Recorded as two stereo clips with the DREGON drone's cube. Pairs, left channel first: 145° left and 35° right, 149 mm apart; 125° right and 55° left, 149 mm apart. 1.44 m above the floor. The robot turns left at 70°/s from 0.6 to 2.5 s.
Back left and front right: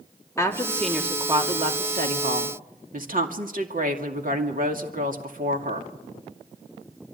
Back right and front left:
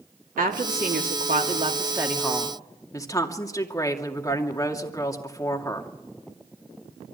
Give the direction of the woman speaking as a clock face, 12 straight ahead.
9 o'clock.